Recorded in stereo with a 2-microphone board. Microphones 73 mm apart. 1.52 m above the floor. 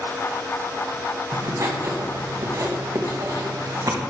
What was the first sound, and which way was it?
Writing, 55° right (ahead or behind).